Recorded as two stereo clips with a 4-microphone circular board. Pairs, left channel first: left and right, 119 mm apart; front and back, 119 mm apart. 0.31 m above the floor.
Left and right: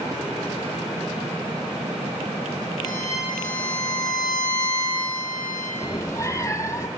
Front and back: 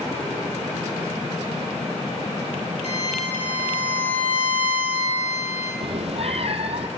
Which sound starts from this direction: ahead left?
A violin, at 2.8 s.